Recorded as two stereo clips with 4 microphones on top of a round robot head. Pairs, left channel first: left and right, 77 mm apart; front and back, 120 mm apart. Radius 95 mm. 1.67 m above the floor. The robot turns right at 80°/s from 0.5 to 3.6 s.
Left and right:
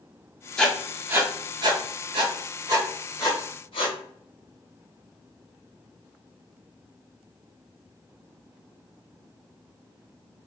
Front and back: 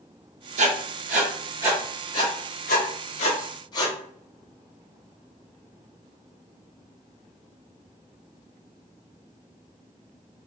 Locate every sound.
0.6 s writing: 165° left, 0.5 m; by 3.9 s 50° left, 0.5 m